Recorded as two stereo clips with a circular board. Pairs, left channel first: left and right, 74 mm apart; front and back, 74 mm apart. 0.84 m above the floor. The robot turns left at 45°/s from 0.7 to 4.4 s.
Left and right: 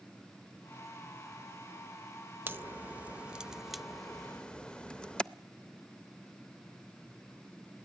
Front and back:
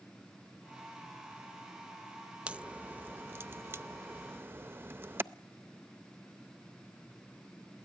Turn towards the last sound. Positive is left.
turn(degrees=155)